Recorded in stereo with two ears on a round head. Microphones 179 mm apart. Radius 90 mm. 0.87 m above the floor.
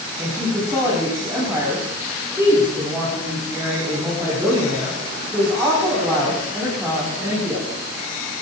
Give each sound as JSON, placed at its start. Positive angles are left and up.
{"t": 0.2, "sound": "a woman speaking", "side_deg": -15, "distance_m": 7.5}